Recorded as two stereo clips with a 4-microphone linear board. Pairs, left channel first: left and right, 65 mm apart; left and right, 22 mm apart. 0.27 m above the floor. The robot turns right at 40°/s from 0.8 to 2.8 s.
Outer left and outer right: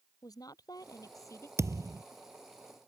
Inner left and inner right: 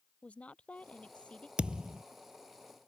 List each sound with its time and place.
0.2 s a woman speaking: 75° left (ahead or behind); by 1.5 s 50° left (ahead or behind)
1.6 s a thud: 50° right (ahead or behind); by 2.0 s 70° right (ahead or behind)